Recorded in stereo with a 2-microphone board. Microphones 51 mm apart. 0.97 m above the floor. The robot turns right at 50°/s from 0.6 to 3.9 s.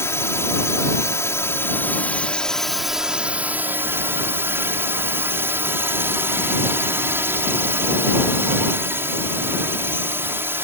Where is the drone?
70° left; by 10.7 s 125° right.